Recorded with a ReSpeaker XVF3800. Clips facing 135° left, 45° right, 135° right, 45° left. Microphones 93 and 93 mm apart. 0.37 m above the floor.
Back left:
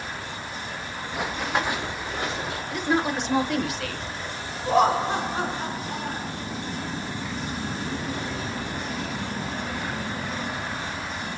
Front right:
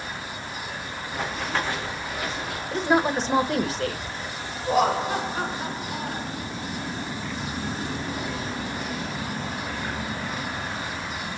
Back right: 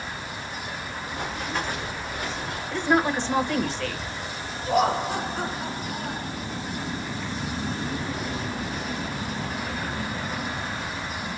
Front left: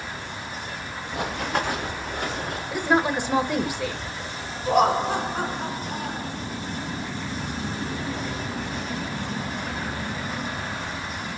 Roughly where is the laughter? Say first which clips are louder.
Back left 2 dB, front left 3 dB; left.